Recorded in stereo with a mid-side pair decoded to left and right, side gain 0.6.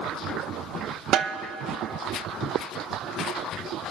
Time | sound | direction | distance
1.1 | a snare drum | 55° right | 0.6 m